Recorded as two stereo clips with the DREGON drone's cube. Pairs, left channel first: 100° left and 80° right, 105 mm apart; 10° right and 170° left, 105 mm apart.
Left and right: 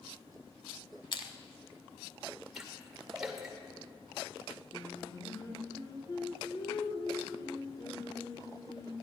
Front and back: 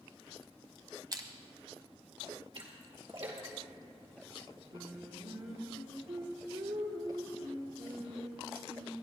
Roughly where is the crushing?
Behind left.